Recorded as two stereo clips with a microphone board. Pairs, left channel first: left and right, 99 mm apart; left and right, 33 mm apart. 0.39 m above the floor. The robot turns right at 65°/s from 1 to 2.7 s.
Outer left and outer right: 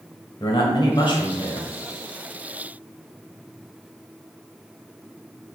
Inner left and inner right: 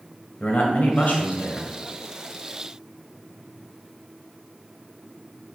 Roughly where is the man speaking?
Left.